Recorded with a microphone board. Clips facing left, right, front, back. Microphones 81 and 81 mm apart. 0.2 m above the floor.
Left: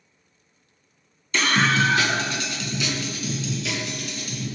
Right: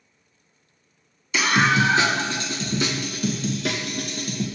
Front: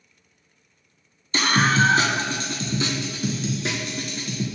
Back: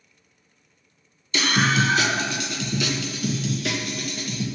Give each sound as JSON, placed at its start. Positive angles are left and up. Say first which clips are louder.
{"t": 1.3, "sound": "a scream", "louder": "right 1 dB, front 2 dB", "azimuth_deg": -10, "distance_m": 1.4}